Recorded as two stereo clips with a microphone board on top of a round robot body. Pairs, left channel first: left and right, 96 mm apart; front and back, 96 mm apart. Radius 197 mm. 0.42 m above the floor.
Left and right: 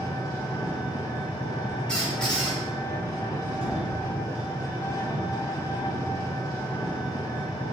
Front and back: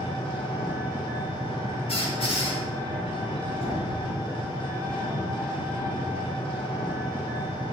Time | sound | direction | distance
0.0 | an engine running | 35° left | 1.5 m
1.9 | a squeak | 10° left | 2.5 m
3.6 | knocking | 10° left | 2.5 m